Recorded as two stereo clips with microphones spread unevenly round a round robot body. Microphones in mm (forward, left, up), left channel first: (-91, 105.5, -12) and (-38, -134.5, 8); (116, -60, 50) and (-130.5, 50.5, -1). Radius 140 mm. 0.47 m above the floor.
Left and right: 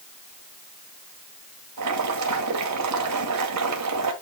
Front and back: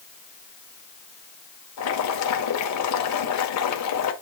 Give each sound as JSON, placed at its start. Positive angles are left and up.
{"t": 1.8, "sound": "boiling", "azimuth_deg": -55, "distance_m": 1.7}